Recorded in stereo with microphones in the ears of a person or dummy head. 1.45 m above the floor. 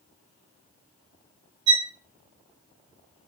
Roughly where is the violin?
Right.